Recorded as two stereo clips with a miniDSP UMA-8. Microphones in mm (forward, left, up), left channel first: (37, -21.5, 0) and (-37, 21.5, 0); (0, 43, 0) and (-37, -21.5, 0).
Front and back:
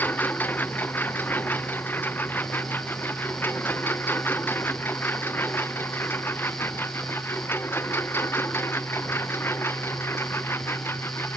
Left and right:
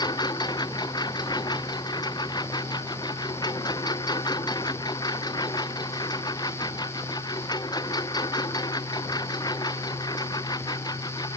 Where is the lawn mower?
40° left; by 11.4 s 30° left.